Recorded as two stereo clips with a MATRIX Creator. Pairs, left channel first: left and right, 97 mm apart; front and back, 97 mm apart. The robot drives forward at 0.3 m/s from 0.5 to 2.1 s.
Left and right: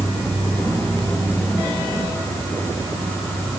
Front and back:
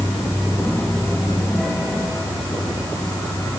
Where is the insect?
90° right, 2.5 m; by 3.6 s 105° right, 2.5 m.